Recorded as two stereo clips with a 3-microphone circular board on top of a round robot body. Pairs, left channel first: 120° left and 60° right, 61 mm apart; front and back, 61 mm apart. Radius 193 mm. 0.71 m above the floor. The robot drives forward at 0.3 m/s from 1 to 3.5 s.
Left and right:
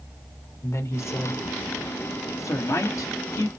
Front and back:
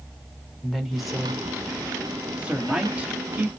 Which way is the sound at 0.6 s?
90° left.